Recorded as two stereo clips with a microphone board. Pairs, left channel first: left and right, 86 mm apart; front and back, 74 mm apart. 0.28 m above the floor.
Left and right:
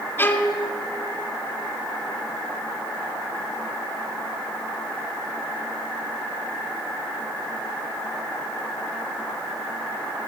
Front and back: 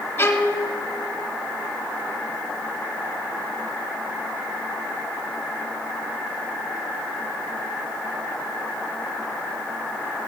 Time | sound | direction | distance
0.2 | a violin | 45° left | 1.5 m